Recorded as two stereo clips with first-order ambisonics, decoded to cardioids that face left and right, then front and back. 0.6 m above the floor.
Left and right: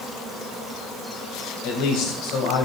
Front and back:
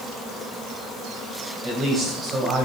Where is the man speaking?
110° left, 4.5 m; by 2.7 s 115° left, 3.5 m.